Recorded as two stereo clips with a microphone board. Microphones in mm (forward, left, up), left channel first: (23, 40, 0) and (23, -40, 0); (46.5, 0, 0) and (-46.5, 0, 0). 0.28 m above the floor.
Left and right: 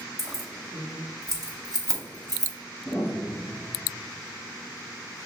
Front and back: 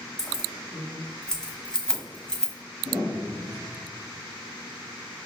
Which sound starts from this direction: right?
Keys jangling, at 0.2 s.